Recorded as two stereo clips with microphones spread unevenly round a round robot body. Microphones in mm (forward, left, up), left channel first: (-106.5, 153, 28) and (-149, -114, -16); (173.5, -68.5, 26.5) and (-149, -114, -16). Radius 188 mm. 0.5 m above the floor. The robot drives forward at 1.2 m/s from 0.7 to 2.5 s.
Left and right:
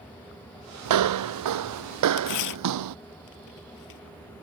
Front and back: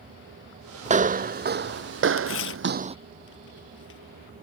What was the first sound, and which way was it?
Footsteps, 100° right.